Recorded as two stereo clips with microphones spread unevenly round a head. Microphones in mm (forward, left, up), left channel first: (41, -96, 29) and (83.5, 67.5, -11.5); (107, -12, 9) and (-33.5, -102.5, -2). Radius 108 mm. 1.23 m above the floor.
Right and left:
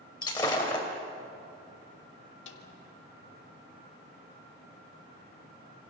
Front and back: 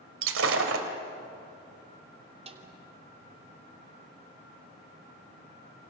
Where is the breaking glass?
175° right, 2.5 m.